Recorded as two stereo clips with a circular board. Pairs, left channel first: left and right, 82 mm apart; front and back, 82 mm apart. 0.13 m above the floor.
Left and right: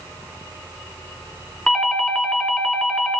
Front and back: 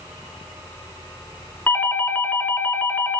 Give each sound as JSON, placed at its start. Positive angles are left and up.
{"t": 1.7, "sound": "a doorbell", "azimuth_deg": 10, "distance_m": 1.5}